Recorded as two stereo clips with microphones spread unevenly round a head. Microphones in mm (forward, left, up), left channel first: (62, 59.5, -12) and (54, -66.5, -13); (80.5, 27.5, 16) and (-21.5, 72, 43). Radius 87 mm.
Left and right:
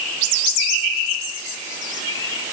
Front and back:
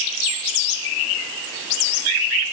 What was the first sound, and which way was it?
Only background noise.